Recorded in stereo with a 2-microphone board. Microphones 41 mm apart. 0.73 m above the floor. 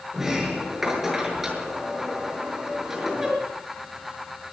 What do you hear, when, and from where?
0.1 s a sliding door: 5° right (ahead or behind), 6 m